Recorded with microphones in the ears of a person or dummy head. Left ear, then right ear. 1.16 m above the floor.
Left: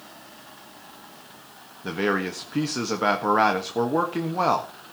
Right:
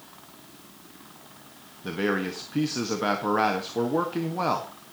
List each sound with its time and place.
1.8 s a man speaking: 20° left (ahead or behind), 1.6 m